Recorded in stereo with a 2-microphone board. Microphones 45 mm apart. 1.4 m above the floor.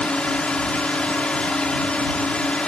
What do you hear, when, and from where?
0.0 s a drone: 25° left (ahead or behind)